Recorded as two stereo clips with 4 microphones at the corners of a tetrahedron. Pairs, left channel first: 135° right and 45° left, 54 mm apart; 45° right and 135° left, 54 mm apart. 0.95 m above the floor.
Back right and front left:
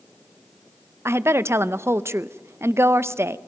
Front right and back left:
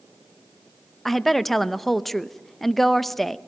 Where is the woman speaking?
40° left, 0.7 m.